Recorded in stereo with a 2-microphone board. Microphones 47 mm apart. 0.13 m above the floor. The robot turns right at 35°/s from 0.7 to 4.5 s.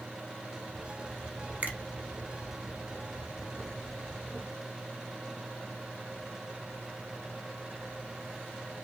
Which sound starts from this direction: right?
A finger snap, at 1.6 s.